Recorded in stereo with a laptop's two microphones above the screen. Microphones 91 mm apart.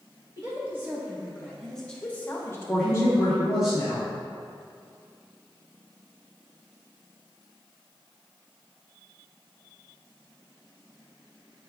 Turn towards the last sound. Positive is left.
turn(degrees=-5)  # may be behind; listen again after turning